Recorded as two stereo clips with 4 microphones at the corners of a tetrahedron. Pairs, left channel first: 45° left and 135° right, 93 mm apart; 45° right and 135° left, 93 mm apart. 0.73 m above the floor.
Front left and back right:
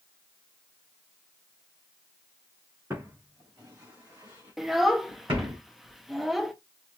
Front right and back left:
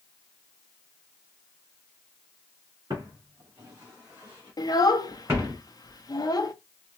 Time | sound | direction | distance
2.9 | footsteps | 170° left | 3 m
4.6 | a child speaking | 45° right | 0.5 m